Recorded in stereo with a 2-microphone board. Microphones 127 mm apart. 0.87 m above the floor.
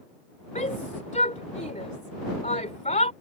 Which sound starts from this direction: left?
A shout, at 0.6 s.